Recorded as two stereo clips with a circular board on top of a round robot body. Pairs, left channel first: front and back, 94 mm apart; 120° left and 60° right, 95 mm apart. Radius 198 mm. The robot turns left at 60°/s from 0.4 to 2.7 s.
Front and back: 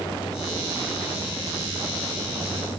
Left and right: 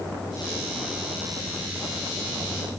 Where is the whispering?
I don't hear whispering.